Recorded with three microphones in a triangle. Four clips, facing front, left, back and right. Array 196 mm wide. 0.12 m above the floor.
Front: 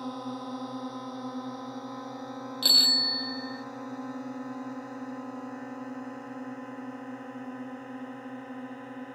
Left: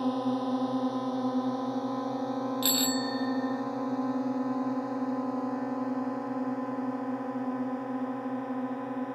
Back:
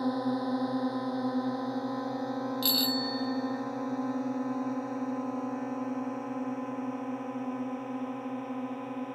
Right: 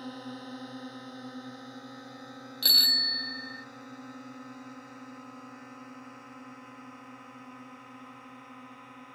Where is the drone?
125° left; by 9.2 s 115° left.